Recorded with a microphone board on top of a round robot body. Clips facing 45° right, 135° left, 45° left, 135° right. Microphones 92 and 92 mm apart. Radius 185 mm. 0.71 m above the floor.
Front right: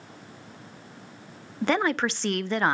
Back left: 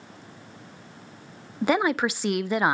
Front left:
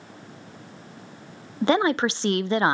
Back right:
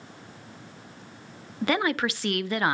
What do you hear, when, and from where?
1.6 s a woman speaking: 65° left, 0.5 m